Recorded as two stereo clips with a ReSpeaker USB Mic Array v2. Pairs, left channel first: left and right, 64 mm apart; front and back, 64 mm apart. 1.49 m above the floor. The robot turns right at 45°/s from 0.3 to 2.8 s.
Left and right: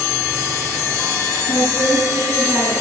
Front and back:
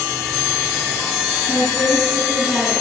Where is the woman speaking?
65° right, 2 m; by 2.7 s 10° right, 2 m.